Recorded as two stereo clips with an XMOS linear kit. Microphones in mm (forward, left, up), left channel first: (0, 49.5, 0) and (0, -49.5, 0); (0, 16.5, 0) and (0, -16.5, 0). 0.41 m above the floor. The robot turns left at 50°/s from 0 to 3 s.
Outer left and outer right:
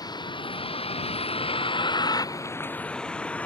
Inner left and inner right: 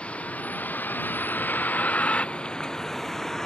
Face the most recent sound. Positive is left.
turn(degrees=15)  # may be behind; listen again after turning